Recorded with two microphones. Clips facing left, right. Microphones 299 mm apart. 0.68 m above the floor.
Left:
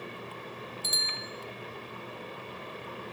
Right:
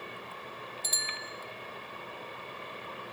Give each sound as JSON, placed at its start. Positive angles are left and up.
{"t": 0.8, "sound": "a bicycle bell", "side_deg": 15, "distance_m": 2.0}